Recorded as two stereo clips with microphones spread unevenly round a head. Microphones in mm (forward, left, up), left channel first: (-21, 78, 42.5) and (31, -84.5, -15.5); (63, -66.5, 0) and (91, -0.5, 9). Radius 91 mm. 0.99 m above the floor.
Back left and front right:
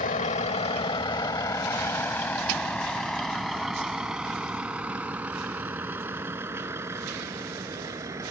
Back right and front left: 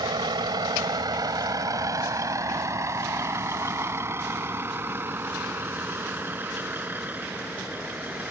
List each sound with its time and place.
0.0 s a vehicle: 60° left; by 8.3 s straight ahead